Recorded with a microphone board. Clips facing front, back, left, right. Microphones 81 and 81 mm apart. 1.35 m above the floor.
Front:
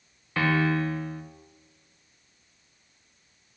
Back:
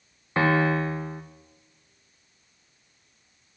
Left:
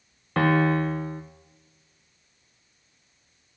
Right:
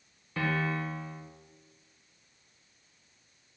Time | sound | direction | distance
0.4 | a piano | 120° left | 1.2 m